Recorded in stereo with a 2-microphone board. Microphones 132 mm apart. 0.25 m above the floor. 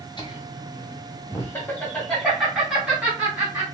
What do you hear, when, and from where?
0.2 s laughter: 35° left (ahead or behind), 1.4 m; by 3.6 s 15° right (ahead or behind), 1.9 m